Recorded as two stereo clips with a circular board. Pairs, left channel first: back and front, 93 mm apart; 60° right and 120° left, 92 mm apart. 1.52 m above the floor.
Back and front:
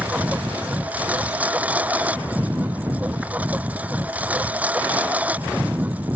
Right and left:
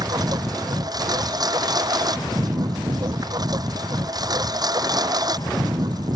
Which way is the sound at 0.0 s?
75° left.